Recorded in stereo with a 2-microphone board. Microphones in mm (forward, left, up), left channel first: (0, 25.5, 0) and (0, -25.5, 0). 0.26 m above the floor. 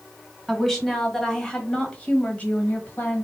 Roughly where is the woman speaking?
Centre.